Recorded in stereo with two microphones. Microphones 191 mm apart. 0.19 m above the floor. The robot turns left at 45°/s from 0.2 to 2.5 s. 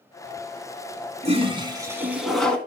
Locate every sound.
1.2 s a toilet flushing: 130° right, 1.9 m; by 2.6 s 175° left, 1.9 m